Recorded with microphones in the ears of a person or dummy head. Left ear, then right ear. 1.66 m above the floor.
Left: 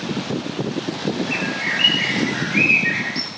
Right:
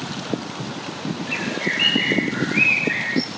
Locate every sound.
1.3 s a bird: 80° left, 10 m